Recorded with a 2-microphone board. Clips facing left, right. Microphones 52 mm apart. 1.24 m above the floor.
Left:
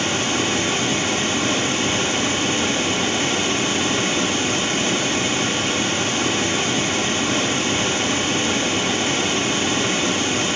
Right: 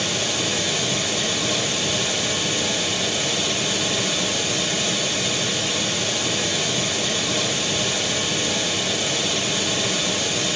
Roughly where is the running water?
Left.